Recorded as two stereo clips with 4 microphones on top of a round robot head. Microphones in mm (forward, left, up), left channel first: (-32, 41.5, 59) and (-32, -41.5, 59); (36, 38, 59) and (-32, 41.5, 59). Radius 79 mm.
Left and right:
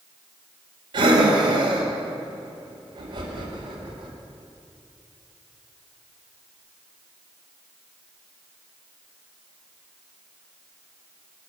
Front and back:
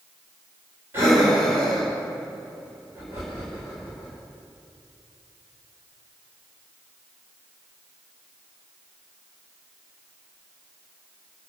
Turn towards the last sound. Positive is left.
turn(degrees=-115)